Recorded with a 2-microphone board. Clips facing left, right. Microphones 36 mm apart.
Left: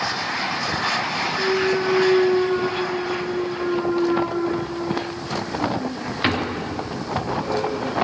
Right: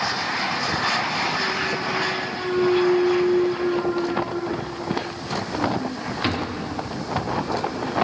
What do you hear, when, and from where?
1.4 s a clunk: 25° left (ahead or behind), 0.6 m